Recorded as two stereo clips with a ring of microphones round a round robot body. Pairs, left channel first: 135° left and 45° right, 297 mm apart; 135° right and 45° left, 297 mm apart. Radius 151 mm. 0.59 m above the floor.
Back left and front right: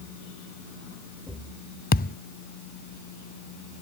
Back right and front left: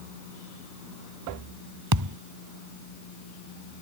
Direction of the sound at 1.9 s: 75° left.